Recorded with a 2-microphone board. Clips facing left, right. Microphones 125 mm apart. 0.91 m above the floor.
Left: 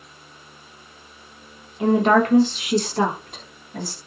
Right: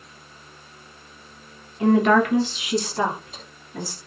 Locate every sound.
1.8 s a woman speaking: 20° left (ahead or behind), 0.7 m; by 4.0 s 70° left (ahead or behind), 1.7 m